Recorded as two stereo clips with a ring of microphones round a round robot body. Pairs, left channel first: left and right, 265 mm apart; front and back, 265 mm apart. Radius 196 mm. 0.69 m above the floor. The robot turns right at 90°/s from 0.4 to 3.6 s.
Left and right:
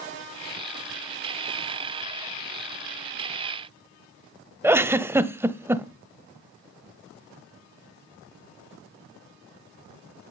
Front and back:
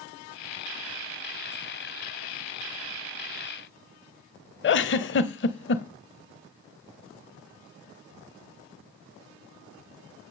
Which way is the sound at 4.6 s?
15° right.